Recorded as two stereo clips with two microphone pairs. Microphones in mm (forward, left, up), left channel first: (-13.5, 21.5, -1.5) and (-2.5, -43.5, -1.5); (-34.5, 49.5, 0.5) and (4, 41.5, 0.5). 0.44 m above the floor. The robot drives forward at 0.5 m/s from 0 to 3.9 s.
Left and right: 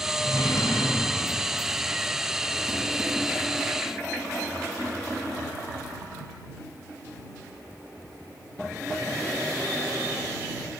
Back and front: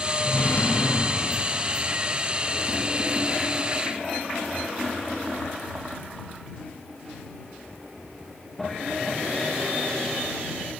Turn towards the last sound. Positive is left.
turn(degrees=160)